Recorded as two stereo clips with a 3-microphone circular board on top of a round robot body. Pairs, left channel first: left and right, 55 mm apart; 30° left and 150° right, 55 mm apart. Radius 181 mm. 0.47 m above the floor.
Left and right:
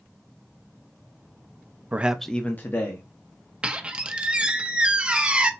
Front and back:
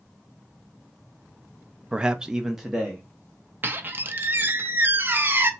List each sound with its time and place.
1.9 s a man speaking: 90° right, 0.7 m; by 3.1 s 125° left, 1.2 m
3.6 s a squeak: 145° right, 0.8 m